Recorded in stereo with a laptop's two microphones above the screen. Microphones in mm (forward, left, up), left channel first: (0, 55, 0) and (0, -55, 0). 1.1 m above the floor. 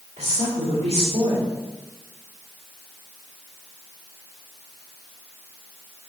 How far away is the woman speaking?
About 1.7 m.